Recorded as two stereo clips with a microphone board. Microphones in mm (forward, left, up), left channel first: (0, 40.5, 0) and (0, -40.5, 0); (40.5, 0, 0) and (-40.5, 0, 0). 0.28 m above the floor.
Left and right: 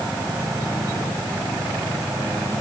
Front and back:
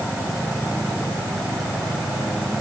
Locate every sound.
Only background noise.